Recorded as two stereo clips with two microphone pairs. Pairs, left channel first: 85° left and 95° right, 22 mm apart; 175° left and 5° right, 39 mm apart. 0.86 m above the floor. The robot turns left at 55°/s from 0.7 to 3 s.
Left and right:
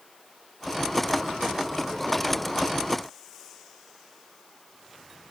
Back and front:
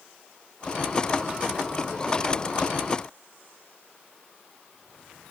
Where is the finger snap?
I don't hear a finger snap.